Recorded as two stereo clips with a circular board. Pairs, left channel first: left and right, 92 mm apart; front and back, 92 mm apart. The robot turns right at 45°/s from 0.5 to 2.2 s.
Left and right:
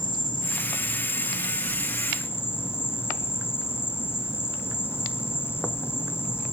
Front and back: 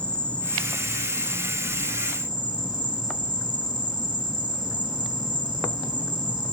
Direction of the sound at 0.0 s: 75° left.